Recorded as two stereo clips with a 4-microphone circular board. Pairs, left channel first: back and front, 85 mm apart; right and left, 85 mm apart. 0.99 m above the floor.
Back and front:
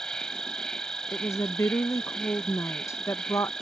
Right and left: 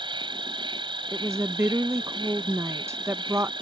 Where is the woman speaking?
135° left.